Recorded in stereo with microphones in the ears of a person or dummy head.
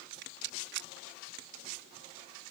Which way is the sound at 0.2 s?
60° right (ahead or behind).